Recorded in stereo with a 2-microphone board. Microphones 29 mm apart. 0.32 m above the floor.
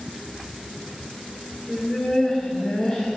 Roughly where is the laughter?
Centre.